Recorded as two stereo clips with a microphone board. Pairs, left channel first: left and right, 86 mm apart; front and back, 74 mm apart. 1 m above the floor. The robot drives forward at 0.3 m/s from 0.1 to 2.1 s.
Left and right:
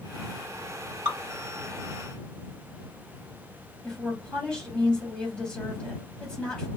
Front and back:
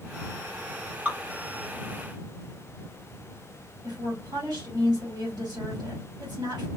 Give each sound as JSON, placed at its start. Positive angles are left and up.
{"t": 1.1, "sound": "dripping", "azimuth_deg": -110, "distance_m": 1.5}
{"t": 3.8, "sound": "a woman speaking", "azimuth_deg": 170, "distance_m": 1.8}